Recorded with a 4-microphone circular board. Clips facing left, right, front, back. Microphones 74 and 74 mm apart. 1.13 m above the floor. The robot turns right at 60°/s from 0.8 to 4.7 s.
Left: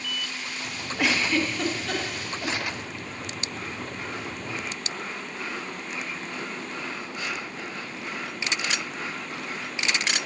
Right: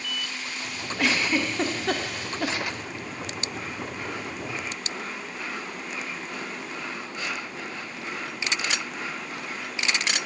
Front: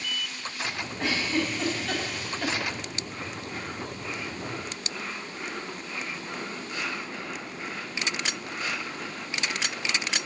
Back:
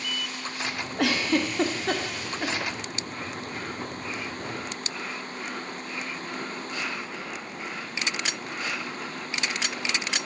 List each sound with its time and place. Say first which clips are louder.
1.0 s a giggle: even, back 4 dB; 170° left, 0.6 m; by 2.5 s 95° right, 0.6 m